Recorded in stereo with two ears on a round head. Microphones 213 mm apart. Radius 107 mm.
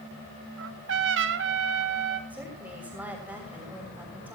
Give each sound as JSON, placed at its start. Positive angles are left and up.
{"t": 0.6, "sound": "a trumpet", "side_deg": -50, "distance_m": 1.7}
{"t": 2.3, "sound": "a woman speaking", "side_deg": -5, "distance_m": 6.5}